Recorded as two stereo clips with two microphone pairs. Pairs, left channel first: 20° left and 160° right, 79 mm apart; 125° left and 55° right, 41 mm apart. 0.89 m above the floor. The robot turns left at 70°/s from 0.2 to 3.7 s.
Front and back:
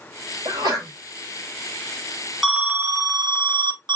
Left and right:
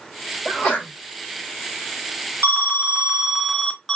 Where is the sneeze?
170° right, 4 m; by 0.9 s 160° left, 4 m.